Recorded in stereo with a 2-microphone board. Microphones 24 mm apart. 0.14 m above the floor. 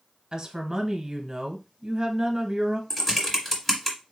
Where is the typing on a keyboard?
15° left (ahead or behind), 1.5 m.